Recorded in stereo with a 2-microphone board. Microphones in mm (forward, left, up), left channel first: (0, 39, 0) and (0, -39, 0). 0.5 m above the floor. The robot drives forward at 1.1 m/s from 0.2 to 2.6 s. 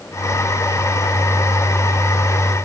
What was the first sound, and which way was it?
Only background noise.